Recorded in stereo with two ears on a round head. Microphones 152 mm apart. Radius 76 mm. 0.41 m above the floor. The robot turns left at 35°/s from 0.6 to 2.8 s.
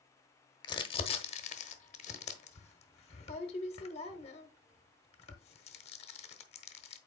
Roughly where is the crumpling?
Left.